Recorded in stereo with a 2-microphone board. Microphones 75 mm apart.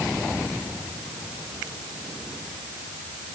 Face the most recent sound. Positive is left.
No sound to turn to.